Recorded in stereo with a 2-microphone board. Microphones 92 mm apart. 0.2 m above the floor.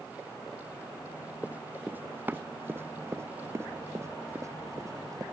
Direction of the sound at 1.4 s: 15° right (ahead or behind).